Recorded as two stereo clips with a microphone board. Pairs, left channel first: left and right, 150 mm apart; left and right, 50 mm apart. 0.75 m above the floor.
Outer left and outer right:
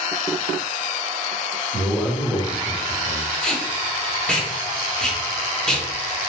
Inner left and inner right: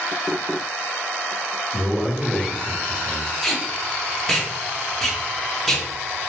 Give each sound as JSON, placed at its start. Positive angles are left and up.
{"t": 1.7, "sound": "a man speaking", "side_deg": -10, "distance_m": 1.3}
{"t": 3.4, "sound": "tape being pulled", "side_deg": 5, "distance_m": 1.0}